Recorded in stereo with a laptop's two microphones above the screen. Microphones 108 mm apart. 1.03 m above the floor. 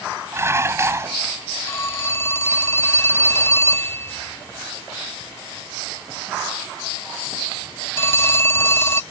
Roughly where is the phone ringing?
Left.